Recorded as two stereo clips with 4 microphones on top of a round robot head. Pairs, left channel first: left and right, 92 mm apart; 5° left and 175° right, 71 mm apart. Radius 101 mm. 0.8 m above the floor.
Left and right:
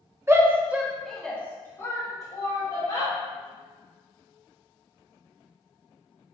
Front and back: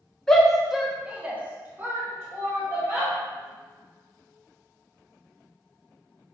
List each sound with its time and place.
0.3 s a shout: 70° right, 1.0 m; by 3.1 s 135° left, 1.8 m